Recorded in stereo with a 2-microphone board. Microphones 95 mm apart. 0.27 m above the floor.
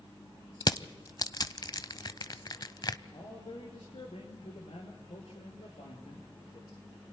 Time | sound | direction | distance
0.6 | crushing | 45° left (ahead or behind) | 0.6 m
3.1 | a man speaking | 80° left | 4.5 m